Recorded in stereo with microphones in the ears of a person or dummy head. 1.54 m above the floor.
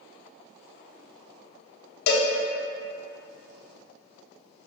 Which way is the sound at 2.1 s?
60° left (ahead or behind).